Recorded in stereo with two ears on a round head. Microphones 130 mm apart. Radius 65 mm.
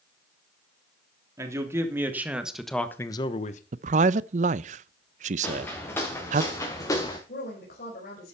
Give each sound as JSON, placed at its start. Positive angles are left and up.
{"t": 1.4, "sound": "a man speaking", "side_deg": -20, "distance_m": 3.0}
{"t": 3.7, "sound": "a man speaking", "side_deg": -50, "distance_m": 0.6}
{"t": 5.4, "sound": "footsteps", "side_deg": 10, "distance_m": 4.5}
{"t": 7.3, "sound": "a woman speaking", "side_deg": 65, "distance_m": 4.5}